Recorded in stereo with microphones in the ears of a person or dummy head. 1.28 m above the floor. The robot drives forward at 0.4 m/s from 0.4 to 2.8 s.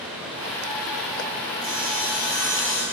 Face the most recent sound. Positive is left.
turn(degrees=60)  # may be behind; listen again after turning